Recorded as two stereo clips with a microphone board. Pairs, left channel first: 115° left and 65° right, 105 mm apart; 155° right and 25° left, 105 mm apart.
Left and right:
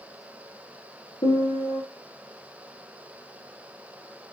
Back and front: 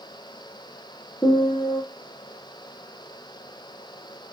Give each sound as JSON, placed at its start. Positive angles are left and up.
{"t": 1.2, "sound": "a piano", "azimuth_deg": 135, "distance_m": 4.5}